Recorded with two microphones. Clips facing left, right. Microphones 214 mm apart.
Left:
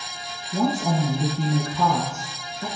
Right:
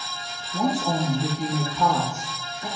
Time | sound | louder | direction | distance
0.5 | a woman speaking | left 1 dB | 60° left (ahead or behind) | 3.5 m